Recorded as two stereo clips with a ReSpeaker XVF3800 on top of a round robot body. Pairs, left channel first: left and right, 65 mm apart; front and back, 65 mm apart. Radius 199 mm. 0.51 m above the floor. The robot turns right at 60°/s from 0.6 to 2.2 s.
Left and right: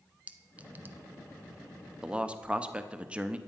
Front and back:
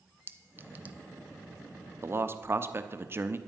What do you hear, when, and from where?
0.3 s a clink: 145° right, 0.7 m; by 1.0 s 120° right, 0.7 m
2.0 s a man speaking: 165° right, 0.9 m; by 3.4 s 150° right, 0.9 m